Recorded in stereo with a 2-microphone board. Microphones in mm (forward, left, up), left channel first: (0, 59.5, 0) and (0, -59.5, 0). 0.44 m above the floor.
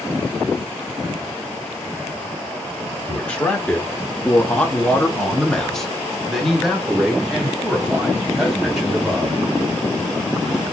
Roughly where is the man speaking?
Centre.